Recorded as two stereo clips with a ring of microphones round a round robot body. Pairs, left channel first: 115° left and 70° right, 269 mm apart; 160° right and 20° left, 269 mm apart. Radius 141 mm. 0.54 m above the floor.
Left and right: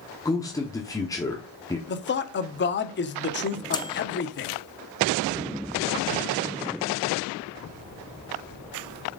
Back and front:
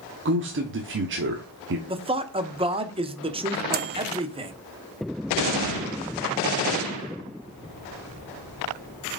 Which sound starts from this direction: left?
A man speaking, at 1.9 s.